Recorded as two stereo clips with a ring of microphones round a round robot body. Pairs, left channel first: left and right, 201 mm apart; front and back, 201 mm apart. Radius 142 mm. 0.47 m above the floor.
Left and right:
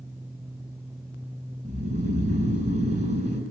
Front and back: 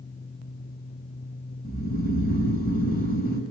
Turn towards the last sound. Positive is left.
turn(degrees=-40)